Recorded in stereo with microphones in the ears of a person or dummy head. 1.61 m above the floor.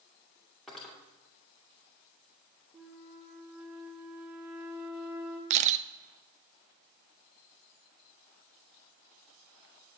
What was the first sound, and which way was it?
Cutlery clinking, centre (ahead or behind).